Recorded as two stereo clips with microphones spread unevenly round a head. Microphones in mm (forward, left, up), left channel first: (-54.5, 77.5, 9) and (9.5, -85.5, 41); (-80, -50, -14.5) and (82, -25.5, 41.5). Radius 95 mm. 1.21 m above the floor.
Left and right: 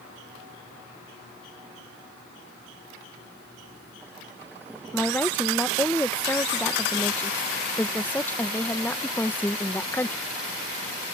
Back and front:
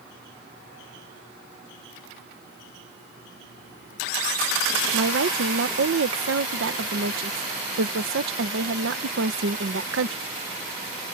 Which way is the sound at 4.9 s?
35° left.